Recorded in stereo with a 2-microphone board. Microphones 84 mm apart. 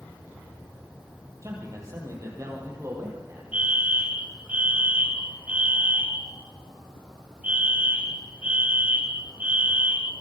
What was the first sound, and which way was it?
A man speaking, 40° right (ahead or behind).